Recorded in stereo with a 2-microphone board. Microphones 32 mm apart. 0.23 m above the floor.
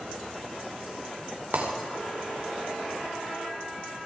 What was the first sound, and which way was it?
Breaking glass, 65° right (ahead or behind).